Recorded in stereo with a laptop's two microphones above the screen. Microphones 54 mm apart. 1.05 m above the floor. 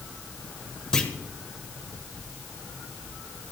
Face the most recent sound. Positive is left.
turn(degrees=10)  # may be behind; listen again after turning